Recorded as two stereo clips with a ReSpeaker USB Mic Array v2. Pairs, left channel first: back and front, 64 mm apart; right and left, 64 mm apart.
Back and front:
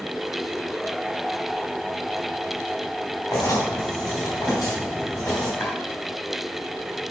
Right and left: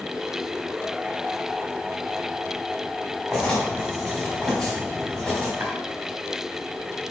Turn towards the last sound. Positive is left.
turn(degrees=135)